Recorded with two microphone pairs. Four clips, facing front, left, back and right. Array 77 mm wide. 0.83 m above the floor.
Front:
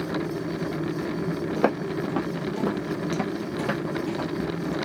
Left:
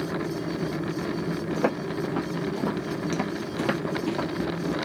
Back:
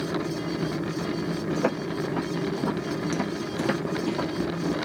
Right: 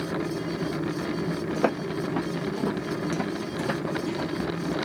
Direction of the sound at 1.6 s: 15° right.